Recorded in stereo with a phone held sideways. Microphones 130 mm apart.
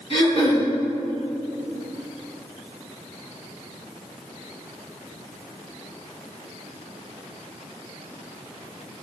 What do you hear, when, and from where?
0.1 s throat clearing: 45° left (ahead or behind), 3.5 m